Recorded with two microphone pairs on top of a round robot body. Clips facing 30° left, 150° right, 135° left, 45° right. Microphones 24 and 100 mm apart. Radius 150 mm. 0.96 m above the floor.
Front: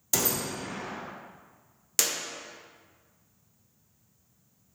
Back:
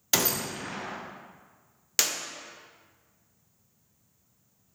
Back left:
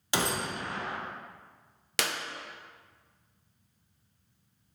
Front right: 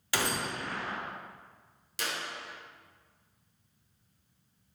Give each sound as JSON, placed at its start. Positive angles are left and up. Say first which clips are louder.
{"t": 0.1, "sound": "a gunshot", "louder": "back 2 dB, back left 2 dB", "azimuth_deg": -160, "distance_m": 1.1}
{"t": 2.0, "sound": "a clap", "louder": "back 1 dB, back left 4 dB", "azimuth_deg": 145, "distance_m": 0.9}